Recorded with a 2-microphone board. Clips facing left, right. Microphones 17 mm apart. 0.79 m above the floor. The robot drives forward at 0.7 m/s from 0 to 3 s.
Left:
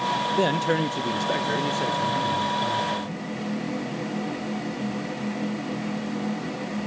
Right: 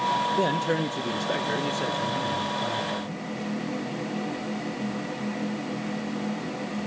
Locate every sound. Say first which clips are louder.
0.4 s a man speaking: left 2 dB; 20° left (ahead or behind), 0.6 m; by 3.2 s 5° left (ahead or behind), 2 m